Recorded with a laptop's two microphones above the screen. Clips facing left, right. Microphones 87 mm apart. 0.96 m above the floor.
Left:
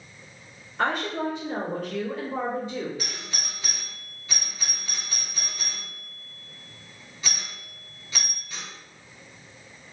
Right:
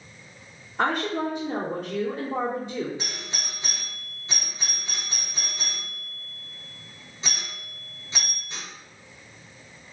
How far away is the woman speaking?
About 1.9 m.